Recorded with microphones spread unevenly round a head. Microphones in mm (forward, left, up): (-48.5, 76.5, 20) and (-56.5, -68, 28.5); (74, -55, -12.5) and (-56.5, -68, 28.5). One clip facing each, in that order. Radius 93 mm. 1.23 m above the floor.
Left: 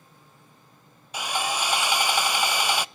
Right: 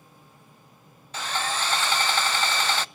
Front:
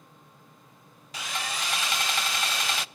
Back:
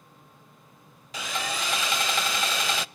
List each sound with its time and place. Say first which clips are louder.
1.1 s sawing: left 1 dB, back 3 dB; 165° left, 0.5 m